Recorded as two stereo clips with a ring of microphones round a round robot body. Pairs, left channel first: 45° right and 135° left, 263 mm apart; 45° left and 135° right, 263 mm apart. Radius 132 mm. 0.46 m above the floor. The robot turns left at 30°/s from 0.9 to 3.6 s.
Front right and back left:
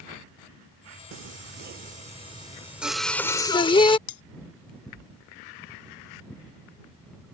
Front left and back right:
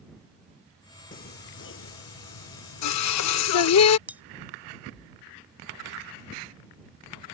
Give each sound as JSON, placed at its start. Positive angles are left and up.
{"t": 1.1, "sound": "singing", "azimuth_deg": 100}
{"t": 4.1, "sound": "cutlery clinking", "azimuth_deg": -50}